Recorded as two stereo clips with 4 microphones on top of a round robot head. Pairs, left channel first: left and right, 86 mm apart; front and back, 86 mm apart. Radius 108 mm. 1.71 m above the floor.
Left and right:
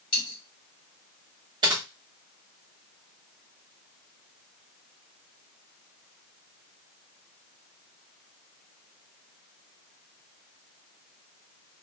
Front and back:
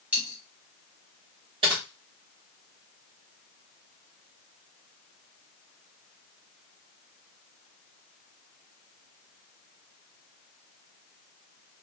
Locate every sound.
0.1 s a dropped coin: 115° left, 1.5 m
1.6 s typing on a keyboard: 140° right, 0.7 m